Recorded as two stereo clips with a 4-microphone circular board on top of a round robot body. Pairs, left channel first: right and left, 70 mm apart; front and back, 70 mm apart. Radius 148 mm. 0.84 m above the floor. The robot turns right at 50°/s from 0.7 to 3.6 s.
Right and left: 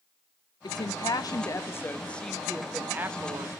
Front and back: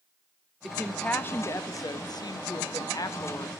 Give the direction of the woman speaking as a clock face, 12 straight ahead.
3 o'clock.